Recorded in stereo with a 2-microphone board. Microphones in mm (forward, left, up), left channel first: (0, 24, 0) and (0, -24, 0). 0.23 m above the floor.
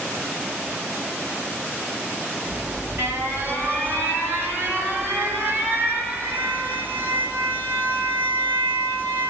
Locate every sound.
2.5 s an alarm: 45° right (ahead or behind), 5.5 m